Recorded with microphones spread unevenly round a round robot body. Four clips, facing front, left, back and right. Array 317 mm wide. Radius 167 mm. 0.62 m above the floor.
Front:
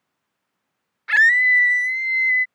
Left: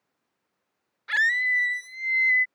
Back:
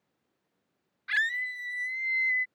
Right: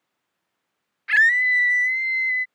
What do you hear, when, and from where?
1.1 s a scream: 5° left; by 2.5 s 35° left